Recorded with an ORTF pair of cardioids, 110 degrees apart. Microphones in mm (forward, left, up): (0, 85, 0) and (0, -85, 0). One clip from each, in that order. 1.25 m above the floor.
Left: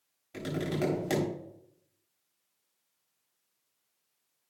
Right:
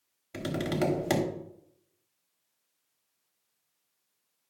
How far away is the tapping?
About 3 m.